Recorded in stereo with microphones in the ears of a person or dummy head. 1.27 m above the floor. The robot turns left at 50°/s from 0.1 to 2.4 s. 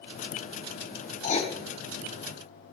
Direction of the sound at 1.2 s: 45° left (ahead or behind).